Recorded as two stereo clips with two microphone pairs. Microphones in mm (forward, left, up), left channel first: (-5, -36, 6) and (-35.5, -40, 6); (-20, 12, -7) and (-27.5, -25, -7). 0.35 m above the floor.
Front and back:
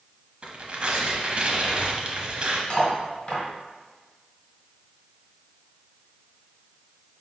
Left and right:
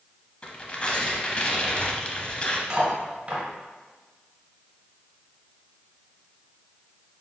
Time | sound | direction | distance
0.4 | tearing paper | 135° left | 0.7 m
2.7 | cutlery clinking | 50° right | 2 m